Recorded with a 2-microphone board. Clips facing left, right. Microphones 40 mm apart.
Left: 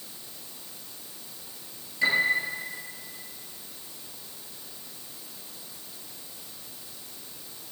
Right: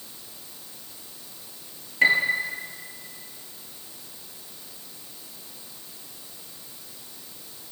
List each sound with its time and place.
2.0 s a piano: 50° right (ahead or behind), 2.5 m